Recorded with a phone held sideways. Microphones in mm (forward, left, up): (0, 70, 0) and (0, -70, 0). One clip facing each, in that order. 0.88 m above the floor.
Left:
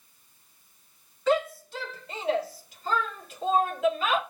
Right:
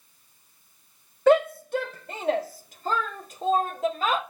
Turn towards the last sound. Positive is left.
turn(degrees=-40)  # may be behind; listen again after turning